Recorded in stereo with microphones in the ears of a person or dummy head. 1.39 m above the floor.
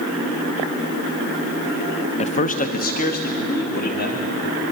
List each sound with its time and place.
2.2 s a man speaking: 35° left (ahead or behind), 0.6 m; by 4.4 s 55° left (ahead or behind), 2.5 m